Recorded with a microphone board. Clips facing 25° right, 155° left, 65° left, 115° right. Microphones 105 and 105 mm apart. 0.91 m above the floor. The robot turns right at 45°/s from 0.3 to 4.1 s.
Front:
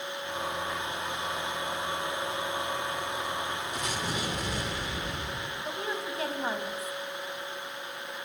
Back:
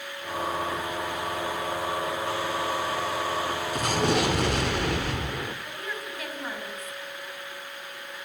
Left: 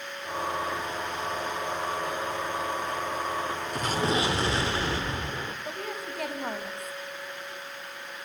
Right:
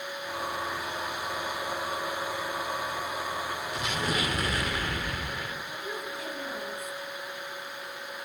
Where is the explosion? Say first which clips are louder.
Back 13 dB, left 5 dB; 115° left, 3.5 m; by 5.5 s 130° left, 3.5 m.